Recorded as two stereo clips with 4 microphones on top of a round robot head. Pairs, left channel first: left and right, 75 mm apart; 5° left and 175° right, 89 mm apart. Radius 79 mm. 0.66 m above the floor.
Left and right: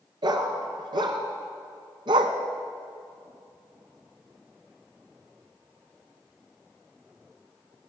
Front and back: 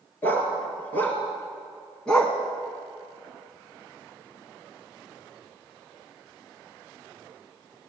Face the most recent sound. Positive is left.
turn(degrees=-80)